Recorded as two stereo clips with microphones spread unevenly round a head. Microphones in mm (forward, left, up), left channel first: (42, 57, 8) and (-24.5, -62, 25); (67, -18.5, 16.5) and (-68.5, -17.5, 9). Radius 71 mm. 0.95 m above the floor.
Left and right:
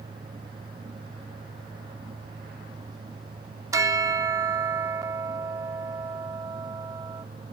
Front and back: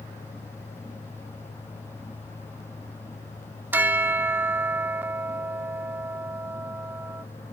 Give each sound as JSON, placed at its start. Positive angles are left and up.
{"t": 3.7, "sound": "a bell", "azimuth_deg": -115}